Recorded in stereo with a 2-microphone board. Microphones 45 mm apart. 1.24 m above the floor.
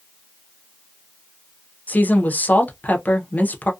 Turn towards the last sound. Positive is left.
turn(degrees=35)  # may be behind; listen again after turning